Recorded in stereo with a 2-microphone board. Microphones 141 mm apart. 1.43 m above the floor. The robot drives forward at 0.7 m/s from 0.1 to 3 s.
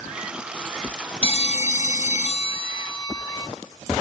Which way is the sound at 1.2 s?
45° left (ahead or behind).